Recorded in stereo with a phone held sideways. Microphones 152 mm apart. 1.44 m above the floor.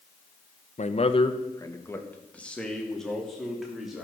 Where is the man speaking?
55° left (ahead or behind), 0.8 m; by 4.0 s 5° right (ahead or behind), 3 m.